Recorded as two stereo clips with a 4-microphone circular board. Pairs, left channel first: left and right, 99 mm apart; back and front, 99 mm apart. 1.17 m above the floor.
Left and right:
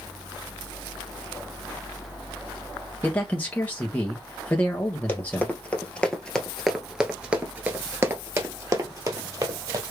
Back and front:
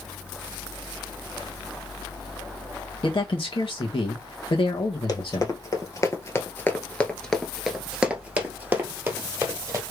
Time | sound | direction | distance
3.0 | a man speaking | 165° left | 1.3 m
5.1 | running footsteps | 155° left | 1.7 m